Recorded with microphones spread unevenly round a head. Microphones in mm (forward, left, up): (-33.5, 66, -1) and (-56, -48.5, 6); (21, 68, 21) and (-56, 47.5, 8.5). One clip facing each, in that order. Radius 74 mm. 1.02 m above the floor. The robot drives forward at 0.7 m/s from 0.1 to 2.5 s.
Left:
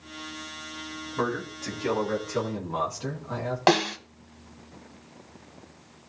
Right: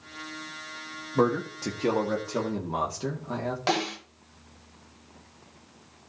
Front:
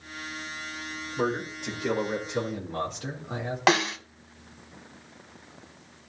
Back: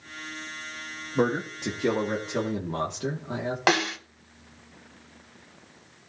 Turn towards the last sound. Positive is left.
turn(degrees=105)